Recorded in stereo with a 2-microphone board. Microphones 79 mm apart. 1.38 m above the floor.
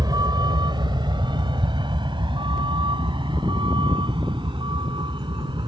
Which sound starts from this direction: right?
A vehicle, at 0.0 s.